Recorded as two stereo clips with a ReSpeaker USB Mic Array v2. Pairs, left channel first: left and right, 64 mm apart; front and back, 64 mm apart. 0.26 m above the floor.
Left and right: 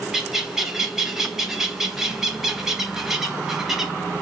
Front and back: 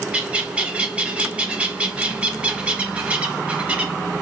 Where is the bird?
160° right, 0.5 m.